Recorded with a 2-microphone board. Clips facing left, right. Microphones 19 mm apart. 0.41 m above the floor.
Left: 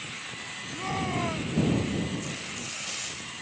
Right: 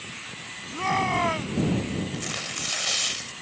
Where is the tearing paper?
60° right (ahead or behind).